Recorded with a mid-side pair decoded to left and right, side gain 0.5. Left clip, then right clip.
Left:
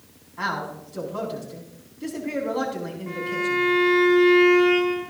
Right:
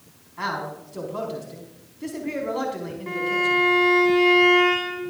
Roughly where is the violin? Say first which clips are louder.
Right 4 dB; ahead right.